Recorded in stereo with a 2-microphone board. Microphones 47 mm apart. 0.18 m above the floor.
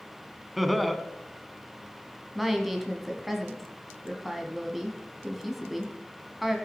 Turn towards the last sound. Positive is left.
turn(degrees=0)  # may be behind; listen again after turning